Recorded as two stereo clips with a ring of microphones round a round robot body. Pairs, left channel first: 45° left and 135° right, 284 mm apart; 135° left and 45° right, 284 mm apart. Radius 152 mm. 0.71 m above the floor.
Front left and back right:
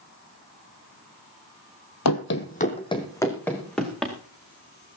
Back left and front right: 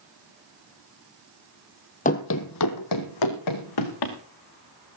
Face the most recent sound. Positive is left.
turn(degrees=135)